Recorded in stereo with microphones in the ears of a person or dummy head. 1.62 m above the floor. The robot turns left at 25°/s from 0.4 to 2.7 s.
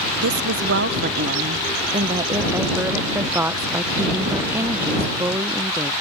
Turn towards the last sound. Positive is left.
turn(degrees=-170)